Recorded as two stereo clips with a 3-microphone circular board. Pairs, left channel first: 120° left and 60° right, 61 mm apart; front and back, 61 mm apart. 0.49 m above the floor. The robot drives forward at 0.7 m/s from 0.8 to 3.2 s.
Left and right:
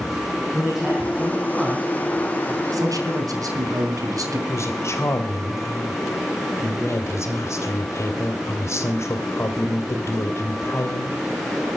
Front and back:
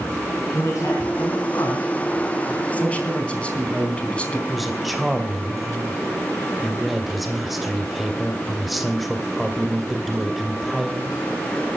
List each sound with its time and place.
0.5 s a man speaking: 25° left, 4.5 m; by 2.6 s 30° left, 3.5 m
2.7 s a man speaking: 65° right, 4 m; by 4.4 s 70° right, 3.5 m
4.5 s a woman speaking: 90° left, 2.5 m